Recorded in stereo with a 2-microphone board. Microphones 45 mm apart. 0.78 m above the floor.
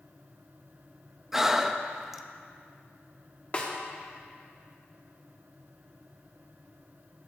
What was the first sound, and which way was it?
Breathing, 10° right (ahead or behind).